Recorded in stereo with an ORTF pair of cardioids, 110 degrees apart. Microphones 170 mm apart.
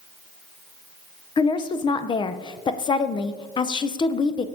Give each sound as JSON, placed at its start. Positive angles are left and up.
{"t": 1.4, "sound": "a woman speaking", "azimuth_deg": 30, "distance_m": 0.5}